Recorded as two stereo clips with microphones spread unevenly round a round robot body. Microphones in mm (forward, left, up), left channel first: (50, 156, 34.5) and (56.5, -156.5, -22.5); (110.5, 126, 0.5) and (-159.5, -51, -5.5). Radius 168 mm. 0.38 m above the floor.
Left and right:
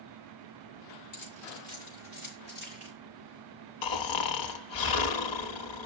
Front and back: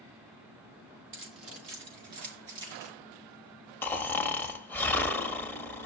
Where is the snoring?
115° left, 0.9 m.